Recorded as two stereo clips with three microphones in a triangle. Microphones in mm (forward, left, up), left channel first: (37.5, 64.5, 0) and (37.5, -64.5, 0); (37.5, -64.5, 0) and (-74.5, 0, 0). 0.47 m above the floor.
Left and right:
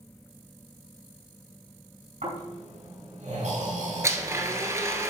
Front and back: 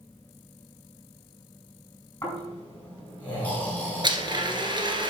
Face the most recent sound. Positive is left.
turn(degrees=-155)